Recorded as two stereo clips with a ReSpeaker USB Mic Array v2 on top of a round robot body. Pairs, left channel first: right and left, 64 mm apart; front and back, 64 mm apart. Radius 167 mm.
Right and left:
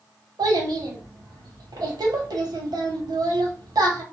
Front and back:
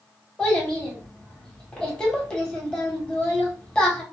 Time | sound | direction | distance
0.4 | a child speaking | 75° left | 1.1 m